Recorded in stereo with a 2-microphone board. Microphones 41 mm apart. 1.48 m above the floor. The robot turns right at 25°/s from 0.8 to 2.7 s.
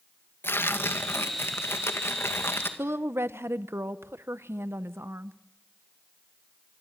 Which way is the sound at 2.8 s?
85° right.